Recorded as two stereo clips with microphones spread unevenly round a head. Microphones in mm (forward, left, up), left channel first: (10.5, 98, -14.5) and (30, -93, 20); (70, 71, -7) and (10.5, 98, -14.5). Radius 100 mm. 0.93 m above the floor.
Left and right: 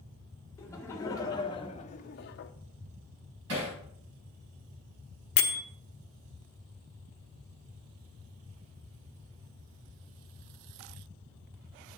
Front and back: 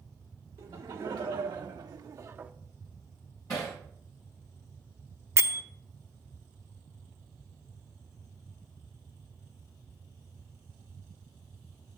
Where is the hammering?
100° right, 5 m.